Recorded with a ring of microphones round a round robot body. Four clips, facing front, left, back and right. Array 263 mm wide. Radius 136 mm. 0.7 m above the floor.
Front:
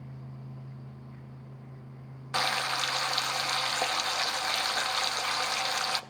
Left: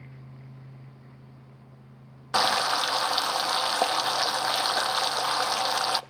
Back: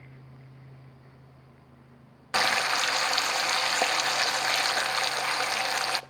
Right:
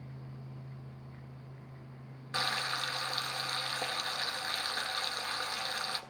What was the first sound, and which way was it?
Frying, 115° left.